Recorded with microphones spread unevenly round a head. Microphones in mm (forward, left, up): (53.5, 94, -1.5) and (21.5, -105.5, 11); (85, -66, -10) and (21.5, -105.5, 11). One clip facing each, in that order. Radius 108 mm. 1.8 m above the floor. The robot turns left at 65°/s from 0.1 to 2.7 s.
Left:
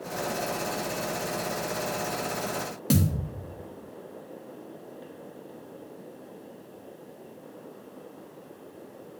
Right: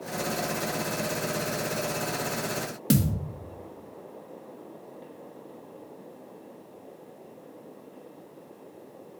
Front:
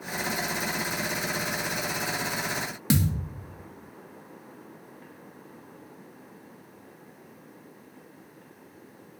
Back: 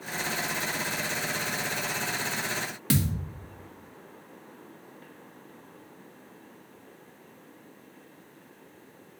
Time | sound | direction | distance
2.9 | a thud | 50° right | 1.3 m